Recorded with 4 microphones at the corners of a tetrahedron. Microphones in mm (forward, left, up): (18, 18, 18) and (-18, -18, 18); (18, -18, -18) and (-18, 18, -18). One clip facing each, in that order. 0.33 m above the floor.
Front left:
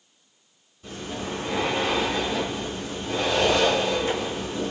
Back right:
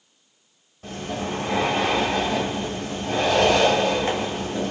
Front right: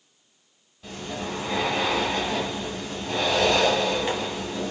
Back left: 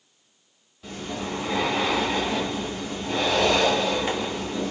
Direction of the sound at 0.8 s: 130° right.